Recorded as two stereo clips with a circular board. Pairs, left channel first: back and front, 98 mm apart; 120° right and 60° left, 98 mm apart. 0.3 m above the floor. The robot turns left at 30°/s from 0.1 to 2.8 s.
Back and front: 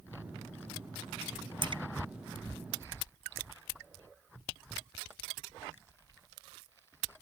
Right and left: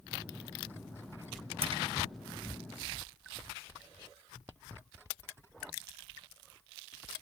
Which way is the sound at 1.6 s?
40° left.